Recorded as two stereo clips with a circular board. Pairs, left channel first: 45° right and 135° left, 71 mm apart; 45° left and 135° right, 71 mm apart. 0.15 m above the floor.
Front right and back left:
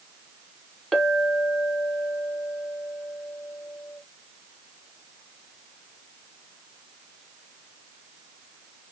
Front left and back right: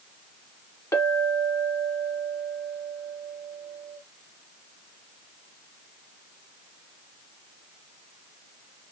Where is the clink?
40° left, 1.2 m.